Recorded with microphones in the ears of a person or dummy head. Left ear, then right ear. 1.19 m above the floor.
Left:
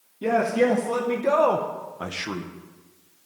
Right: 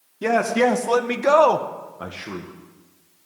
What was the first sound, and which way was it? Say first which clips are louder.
A man speaking: right 2 dB; 75° right (ahead or behind).